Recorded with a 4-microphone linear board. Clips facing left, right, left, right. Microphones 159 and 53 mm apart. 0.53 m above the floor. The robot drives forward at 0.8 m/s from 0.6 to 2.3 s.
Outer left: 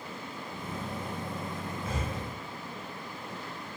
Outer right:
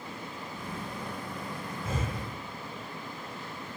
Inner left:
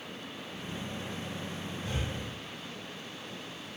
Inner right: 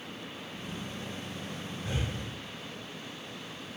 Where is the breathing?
25° right (ahead or behind), 0.8 m; by 2.2 s 20° right (ahead or behind), 1.1 m.